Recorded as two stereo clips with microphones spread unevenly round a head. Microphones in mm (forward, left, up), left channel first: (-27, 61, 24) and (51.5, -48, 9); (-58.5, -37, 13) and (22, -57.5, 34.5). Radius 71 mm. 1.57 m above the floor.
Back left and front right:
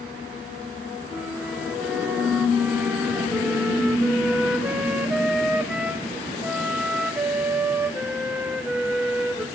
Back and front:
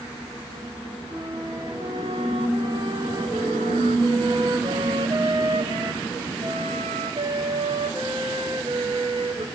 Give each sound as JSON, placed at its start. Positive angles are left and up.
{"t": 1.1, "sound": "a flute", "azimuth_deg": 30, "distance_m": 0.6}